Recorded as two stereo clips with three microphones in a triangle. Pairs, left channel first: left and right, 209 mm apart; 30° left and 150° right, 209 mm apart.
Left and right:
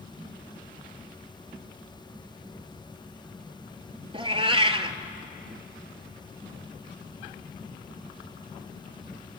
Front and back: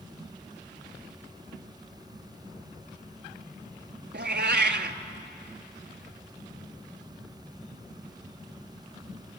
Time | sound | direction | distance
4.1 | a cat meowing | 150° right | 0.6 m